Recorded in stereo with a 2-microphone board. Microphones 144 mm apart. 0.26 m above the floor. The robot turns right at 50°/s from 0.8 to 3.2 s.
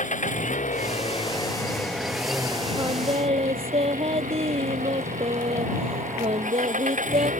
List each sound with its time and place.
0.0 s an engine running: 120° left; by 7.4 s 120° right
2.8 s singing: 20° right (ahead or behind); by 7.3 s 40° right (ahead or behind)